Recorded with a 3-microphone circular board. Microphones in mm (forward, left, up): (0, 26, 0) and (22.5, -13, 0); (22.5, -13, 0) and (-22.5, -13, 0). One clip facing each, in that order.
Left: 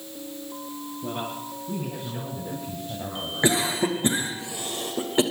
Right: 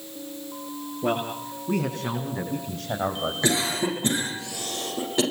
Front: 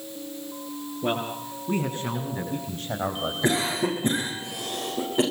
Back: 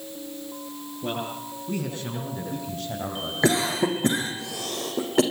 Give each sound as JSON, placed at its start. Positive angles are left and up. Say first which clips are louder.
{"t": 1.0, "sound": "a man speaking", "louder": "right 6 dB, front 3 dB", "azimuth_deg": -60, "distance_m": 8.0}
{"t": 3.4, "sound": "a cough", "louder": "left 3 dB, back 3 dB", "azimuth_deg": -170, "distance_m": 8.5}